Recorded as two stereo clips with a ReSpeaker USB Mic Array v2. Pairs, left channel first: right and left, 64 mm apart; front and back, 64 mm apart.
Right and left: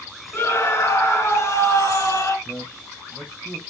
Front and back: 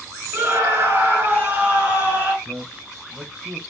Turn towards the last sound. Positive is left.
turn(degrees=-165)